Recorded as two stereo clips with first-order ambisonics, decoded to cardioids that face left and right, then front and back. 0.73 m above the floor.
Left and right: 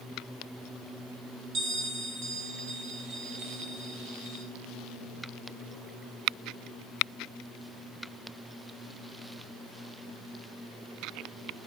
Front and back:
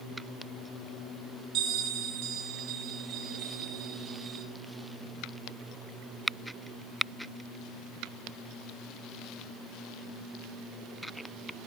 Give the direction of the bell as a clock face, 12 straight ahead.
4 o'clock.